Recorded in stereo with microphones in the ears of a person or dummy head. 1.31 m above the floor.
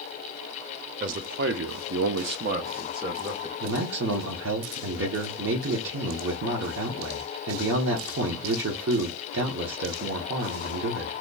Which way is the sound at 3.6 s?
75° right (ahead or behind).